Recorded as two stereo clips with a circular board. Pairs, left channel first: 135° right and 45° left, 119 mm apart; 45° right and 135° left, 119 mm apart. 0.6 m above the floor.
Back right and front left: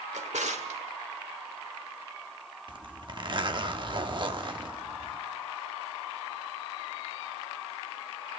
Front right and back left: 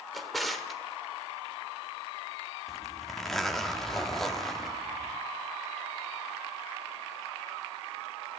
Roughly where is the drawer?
Ahead left.